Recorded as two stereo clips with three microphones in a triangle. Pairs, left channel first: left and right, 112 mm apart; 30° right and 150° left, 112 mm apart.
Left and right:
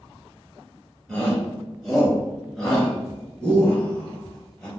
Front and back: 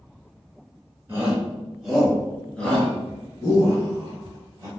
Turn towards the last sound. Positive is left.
turn(degrees=10)